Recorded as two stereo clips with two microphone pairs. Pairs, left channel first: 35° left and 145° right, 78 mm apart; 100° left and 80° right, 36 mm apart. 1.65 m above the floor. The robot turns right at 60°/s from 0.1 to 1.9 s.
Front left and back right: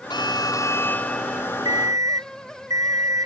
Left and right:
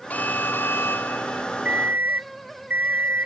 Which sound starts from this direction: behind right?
An alarm clock, at 1.6 s.